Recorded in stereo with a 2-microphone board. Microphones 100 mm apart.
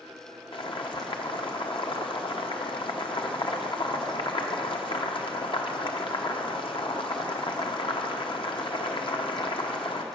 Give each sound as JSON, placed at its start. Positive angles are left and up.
{"t": 0.5, "sound": "boiling", "side_deg": 55, "distance_m": 1.0}